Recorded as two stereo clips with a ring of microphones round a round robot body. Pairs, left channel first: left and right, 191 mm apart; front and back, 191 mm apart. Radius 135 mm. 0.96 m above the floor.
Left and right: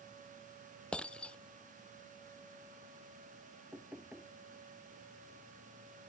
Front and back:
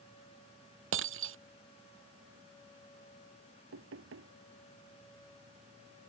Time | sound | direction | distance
0.9 | breaking glass | 175° left | ?
3.7 | knocking | 175° right | ?